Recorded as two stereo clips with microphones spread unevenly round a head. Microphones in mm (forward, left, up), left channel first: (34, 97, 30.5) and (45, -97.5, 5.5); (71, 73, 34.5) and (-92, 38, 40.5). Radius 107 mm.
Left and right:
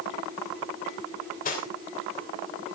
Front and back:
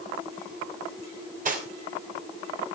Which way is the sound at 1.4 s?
150° left.